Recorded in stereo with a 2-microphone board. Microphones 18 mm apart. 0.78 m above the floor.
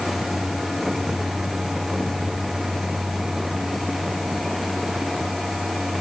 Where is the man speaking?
No man speaking in this recording.